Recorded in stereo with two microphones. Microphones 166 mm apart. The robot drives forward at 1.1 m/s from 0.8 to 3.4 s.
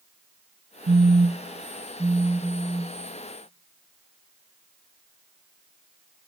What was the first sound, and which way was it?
A phone buzzing, 70° right (ahead or behind).